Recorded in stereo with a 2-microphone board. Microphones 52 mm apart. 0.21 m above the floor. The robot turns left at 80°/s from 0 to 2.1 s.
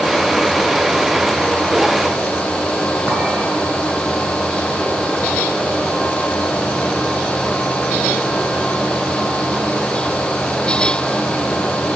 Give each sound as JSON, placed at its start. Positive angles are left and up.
{"t": 3.1, "sound": "a clink", "side_deg": -45, "distance_m": 1.9}